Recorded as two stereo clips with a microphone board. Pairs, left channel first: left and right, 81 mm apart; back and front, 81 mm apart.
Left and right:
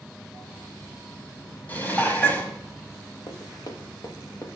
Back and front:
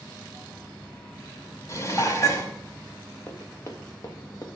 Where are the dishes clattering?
150° left, 1.2 m.